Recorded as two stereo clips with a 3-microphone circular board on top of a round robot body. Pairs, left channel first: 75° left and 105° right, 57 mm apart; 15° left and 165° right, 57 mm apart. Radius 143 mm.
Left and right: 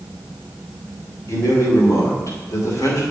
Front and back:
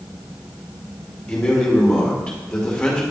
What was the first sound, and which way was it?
A man speaking, 90° left.